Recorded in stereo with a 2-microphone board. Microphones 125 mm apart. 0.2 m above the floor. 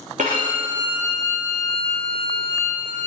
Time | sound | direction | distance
0.2 | a violin | 80° right | 2.5 m